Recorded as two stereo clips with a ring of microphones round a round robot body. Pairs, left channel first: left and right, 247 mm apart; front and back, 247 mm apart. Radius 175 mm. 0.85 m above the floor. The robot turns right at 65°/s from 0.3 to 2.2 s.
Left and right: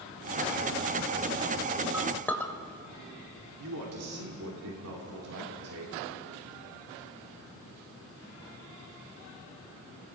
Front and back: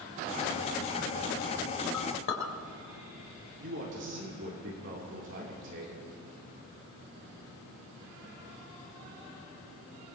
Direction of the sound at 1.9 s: 10° right.